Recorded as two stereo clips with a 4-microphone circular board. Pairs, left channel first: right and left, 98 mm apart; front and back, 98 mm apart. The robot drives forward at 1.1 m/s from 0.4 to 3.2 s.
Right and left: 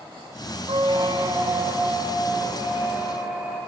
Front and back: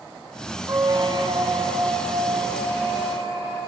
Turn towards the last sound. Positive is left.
turn(degrees=165)